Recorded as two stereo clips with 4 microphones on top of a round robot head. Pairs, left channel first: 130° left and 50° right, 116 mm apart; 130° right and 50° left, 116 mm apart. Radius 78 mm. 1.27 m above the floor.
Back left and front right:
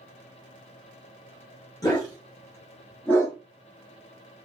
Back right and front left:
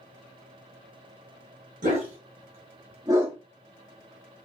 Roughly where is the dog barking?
Left.